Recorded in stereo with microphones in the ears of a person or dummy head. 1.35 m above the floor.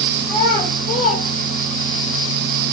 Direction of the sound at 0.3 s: 20° left (ahead or behind).